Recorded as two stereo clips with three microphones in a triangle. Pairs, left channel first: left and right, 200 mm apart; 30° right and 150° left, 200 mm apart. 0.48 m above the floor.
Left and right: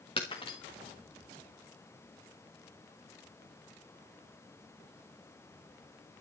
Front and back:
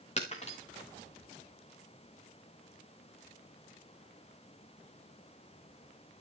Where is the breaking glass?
25° left, 4 m.